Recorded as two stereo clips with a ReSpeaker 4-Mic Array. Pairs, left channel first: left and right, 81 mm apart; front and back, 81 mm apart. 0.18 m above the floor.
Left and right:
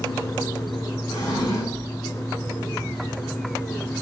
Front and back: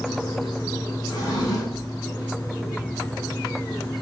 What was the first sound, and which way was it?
A drawer, 45° left.